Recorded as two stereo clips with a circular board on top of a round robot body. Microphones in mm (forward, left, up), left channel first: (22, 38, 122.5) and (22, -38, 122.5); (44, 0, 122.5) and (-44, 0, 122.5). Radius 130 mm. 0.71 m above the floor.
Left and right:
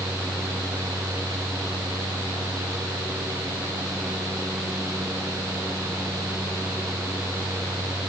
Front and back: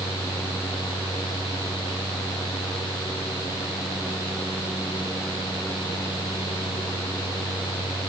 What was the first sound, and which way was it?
Only background noise.